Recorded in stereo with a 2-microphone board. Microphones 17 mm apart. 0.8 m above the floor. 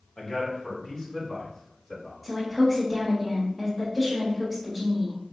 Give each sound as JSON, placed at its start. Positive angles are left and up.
{"t": 0.2, "sound": "a man speaking", "side_deg": 45, "distance_m": 1.4}
{"t": 2.2, "sound": "a woman speaking", "side_deg": 0, "distance_m": 1.3}